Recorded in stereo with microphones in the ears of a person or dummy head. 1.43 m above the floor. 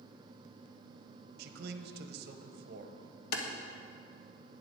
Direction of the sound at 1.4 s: 65° right (ahead or behind).